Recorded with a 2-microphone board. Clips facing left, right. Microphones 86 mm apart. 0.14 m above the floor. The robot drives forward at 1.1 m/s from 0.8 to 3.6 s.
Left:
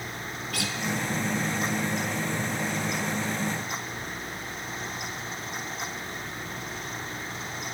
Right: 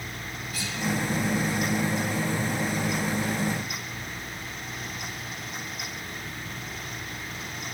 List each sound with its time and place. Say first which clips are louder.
0.5 s a guitar: left 4 dB; 75° left (ahead or behind), 0.8 m